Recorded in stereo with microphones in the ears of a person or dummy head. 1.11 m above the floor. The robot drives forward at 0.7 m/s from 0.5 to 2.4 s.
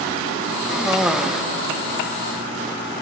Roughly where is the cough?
Centre.